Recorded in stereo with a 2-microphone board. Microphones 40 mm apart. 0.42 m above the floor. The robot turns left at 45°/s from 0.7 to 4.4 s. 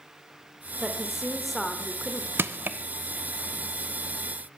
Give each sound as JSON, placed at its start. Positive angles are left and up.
{"t": 0.8, "sound": "a woman speaking", "azimuth_deg": -155, "distance_m": 1.0}
{"t": 2.4, "sound": "crushing", "side_deg": -65, "distance_m": 0.6}